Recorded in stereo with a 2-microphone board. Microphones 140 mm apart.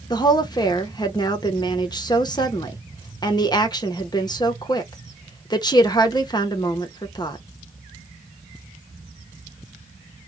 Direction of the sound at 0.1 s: 30° left (ahead or behind).